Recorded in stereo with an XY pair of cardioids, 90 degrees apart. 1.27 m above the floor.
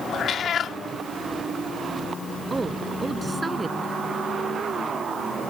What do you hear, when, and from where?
0.1 s a cat meowing: 70° left
2.5 s a woman speaking: 25° right